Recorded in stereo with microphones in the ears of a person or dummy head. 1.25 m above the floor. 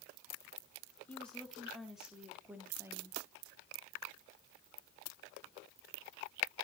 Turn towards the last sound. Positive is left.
turn(degrees=-15)  # may be behind; listen again after turning